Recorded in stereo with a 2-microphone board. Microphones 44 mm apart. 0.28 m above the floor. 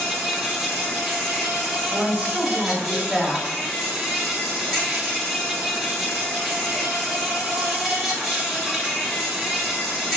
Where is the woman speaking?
15° right (ahead or behind), 1.3 m.